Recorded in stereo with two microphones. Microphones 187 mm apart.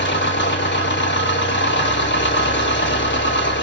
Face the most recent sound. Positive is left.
turn(degrees=65)  # may be behind; listen again after turning